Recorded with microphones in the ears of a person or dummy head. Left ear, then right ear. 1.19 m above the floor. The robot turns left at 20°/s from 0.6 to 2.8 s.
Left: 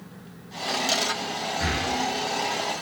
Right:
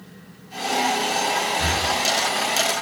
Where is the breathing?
75° right (ahead or behind), 1.2 m; by 1.9 s 80° right, 1.2 m.